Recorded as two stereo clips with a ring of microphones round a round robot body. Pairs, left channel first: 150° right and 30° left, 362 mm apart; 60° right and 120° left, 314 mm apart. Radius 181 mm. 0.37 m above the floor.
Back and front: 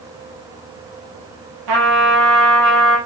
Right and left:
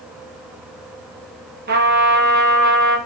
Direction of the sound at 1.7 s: 60° left.